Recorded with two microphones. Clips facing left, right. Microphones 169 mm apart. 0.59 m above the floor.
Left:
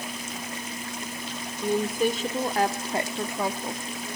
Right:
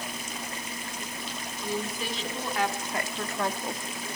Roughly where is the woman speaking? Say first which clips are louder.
Left 9 dB; left.